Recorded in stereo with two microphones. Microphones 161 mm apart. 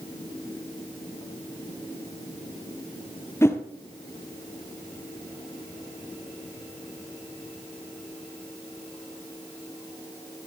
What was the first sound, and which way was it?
A whoosh, 15° left (ahead or behind).